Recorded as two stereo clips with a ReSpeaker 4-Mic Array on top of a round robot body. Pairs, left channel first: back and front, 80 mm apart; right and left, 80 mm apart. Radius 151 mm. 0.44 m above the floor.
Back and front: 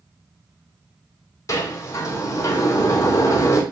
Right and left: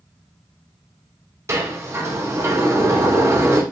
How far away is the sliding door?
About 3.5 m.